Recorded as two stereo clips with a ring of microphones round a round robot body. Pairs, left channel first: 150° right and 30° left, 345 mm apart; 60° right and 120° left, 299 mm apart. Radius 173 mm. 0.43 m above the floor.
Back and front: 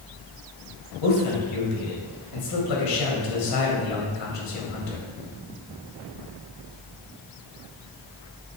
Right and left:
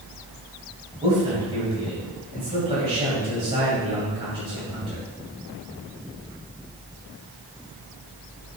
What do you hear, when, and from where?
1.0 s a man speaking: 170° right, 2 m